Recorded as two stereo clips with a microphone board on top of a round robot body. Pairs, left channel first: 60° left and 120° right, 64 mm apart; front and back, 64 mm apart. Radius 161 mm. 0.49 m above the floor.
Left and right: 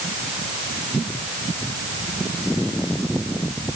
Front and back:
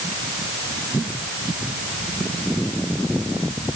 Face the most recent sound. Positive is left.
No sound to turn to.